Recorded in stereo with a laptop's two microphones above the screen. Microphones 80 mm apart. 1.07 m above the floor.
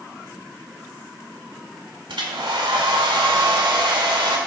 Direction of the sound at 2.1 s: 75° right (ahead or behind).